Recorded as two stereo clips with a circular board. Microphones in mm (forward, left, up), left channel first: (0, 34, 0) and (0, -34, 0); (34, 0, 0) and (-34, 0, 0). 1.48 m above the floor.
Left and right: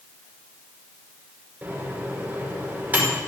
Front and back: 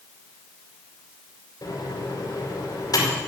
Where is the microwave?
30° right, 5 m.